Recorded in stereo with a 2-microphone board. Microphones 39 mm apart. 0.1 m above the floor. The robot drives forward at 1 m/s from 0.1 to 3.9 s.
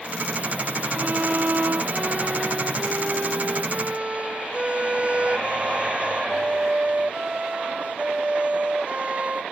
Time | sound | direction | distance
0.9 | a violin | 50° right (ahead or behind) | ?